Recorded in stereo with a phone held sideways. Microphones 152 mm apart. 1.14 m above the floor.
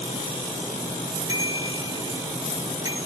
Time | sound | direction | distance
1.3 | a bicycle bell | 25° right (ahead or behind) | 7.5 m